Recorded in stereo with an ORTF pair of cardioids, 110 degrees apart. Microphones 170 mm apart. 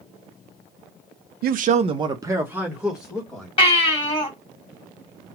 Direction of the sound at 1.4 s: 65° right.